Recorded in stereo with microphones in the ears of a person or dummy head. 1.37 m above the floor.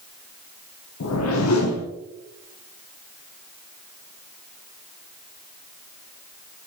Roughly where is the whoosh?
Left.